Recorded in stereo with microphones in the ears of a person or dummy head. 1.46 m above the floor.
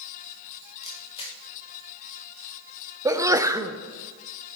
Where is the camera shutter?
30° left (ahead or behind), 1.5 m.